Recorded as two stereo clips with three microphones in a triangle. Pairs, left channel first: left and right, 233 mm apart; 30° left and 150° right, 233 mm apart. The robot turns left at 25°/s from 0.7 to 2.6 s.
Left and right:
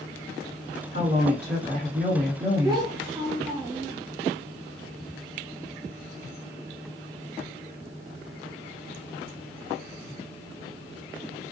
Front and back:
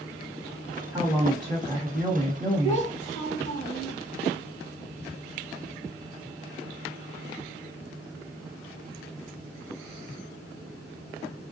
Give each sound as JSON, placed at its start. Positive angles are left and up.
{"t": 0.9, "sound": "a woman speaking", "azimuth_deg": -75, "distance_m": 1.7}
{"t": 2.6, "sound": "a child speaking", "azimuth_deg": -25, "distance_m": 1.3}